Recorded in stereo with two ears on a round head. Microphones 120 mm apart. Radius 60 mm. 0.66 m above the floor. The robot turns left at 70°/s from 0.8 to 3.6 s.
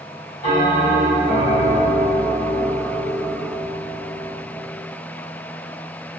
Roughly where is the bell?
Behind left.